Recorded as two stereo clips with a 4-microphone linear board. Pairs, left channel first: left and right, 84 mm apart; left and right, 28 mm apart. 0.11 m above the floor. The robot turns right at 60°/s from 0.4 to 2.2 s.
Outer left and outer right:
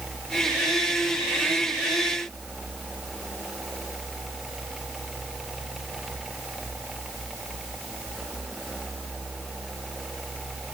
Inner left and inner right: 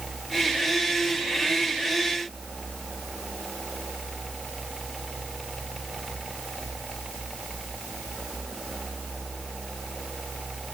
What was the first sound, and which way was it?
Only background noise.